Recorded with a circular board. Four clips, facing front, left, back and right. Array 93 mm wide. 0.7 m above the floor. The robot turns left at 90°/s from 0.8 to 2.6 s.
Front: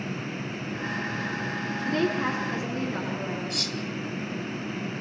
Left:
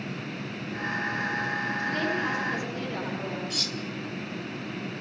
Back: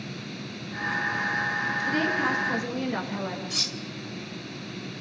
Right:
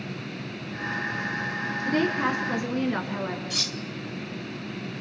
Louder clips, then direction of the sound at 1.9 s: Right 6 dB, front 1 dB; 30° right.